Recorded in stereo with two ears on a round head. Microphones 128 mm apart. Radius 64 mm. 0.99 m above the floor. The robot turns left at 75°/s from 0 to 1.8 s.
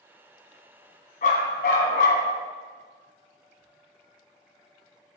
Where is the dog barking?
115° left, 2.0 m; by 2.3 s 70° left, 2.0 m.